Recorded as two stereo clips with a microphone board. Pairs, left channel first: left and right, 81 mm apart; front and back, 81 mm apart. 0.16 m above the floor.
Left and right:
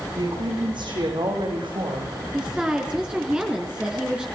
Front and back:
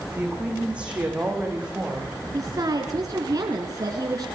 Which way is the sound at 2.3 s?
165° right.